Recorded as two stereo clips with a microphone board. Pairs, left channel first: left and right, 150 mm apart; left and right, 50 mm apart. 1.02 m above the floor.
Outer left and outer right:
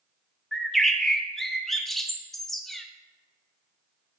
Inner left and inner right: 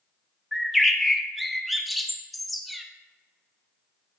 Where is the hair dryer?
No hair dryer in this recording.